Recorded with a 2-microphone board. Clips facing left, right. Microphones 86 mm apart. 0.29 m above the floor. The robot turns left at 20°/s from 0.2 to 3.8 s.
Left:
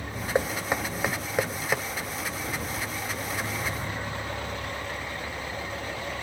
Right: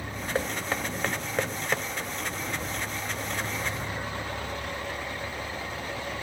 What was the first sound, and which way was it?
Knocking, 20° left (ahead or behind).